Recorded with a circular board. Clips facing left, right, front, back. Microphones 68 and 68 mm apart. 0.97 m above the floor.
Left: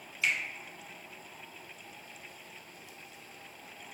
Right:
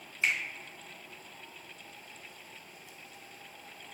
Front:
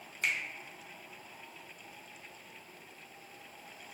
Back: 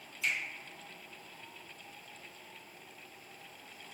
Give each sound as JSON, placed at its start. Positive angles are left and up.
{"t": 0.2, "sound": "a finger snap", "azimuth_deg": -35, "distance_m": 0.6}